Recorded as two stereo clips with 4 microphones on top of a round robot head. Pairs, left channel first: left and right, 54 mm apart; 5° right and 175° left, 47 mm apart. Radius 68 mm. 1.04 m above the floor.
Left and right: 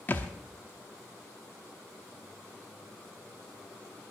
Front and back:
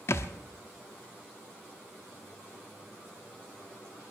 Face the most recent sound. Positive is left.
turn(degrees=25)